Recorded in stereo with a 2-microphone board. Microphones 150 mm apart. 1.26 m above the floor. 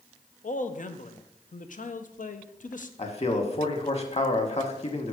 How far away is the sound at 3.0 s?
About 1.3 m.